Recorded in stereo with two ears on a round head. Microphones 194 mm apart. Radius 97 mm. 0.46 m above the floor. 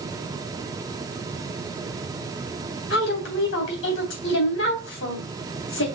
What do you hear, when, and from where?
2.9 s a woman speaking: 65° left (ahead or behind), 3 m